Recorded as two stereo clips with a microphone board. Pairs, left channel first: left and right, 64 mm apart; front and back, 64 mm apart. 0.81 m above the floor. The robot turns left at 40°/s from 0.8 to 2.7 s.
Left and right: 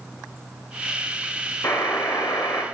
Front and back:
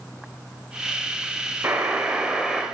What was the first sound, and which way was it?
A buzzer, 130° left.